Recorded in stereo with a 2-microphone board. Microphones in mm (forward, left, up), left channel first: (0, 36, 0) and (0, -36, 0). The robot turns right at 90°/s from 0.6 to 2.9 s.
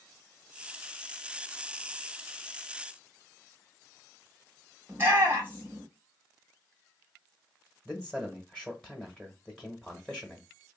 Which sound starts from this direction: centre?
A man speaking, at 7.8 s.